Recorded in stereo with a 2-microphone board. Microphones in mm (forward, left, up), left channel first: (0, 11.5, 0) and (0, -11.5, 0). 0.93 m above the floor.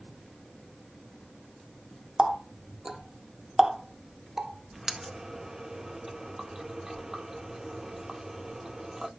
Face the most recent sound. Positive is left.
turn(degrees=-20)  # may be behind; listen again after turning